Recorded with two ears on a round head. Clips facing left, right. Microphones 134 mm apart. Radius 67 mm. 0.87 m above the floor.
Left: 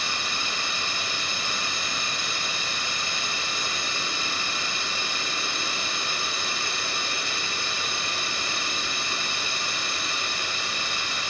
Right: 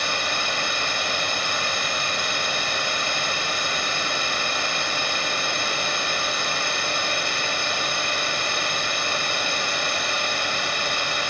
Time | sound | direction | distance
0.0 | a drone | 50° right (ahead or behind) | ?